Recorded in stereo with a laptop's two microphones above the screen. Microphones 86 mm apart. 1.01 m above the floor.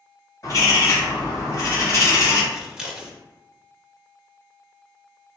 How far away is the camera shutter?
No camera shutter in this recording.